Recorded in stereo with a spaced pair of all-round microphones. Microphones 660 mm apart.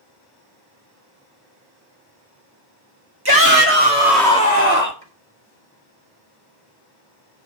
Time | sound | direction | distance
3.2 | a shout | 35° right (ahead or behind) | 2 m
5.0 | chopping | 15° left (ahead or behind) | 4.5 m